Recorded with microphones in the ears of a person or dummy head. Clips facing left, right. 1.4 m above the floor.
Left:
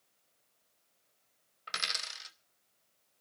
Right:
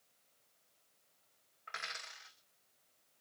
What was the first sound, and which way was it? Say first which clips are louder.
A dropped coin: left 5 dB; 45° left (ahead or behind).